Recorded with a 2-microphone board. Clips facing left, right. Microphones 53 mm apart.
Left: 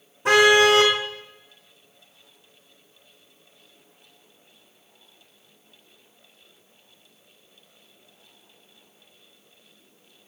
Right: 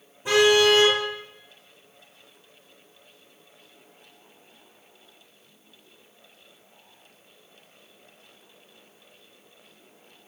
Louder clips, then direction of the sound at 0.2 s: Left 3 dB; 70° left (ahead or behind).